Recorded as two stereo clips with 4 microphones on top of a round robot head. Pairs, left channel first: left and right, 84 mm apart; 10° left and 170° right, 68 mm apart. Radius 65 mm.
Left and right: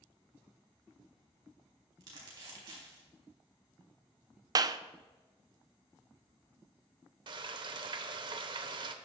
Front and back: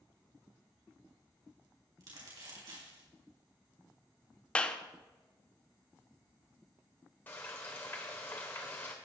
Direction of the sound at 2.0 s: 135° right.